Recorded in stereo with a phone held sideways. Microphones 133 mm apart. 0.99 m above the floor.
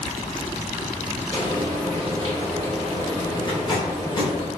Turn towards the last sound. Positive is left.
turn(degrees=35)  # may be behind; listen again after turning